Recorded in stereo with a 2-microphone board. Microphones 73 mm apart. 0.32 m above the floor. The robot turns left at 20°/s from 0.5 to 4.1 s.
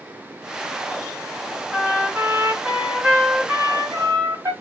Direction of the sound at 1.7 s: 10° right.